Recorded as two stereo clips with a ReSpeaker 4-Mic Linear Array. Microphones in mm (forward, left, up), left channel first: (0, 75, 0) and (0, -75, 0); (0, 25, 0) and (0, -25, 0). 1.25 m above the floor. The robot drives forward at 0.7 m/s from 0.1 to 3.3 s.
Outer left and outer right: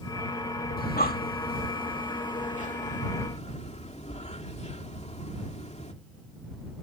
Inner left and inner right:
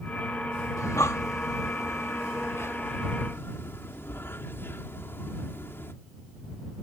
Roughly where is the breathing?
Left.